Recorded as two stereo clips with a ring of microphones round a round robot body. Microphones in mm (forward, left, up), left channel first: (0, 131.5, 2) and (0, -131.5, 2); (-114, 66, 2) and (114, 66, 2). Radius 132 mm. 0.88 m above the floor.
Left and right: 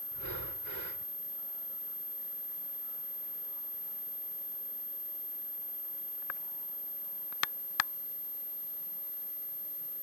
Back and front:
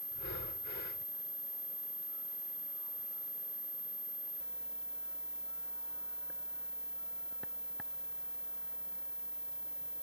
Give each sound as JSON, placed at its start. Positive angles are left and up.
{"t": 0.1, "sound": "breathing", "azimuth_deg": -130}